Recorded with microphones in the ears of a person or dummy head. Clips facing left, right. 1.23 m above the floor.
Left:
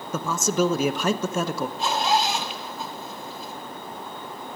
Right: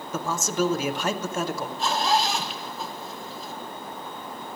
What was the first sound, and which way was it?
A man speaking, 80° left.